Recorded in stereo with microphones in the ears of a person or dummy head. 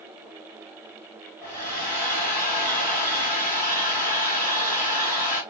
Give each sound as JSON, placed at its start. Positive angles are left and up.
{"t": 1.4, "sound": "a hair dryer", "side_deg": 15, "distance_m": 2.5}